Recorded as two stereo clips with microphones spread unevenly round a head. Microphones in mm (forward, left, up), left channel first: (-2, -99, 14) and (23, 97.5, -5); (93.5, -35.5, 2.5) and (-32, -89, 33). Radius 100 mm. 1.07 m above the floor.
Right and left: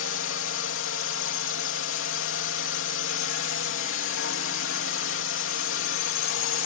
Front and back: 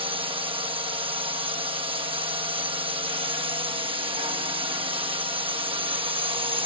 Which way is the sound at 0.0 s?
105° right.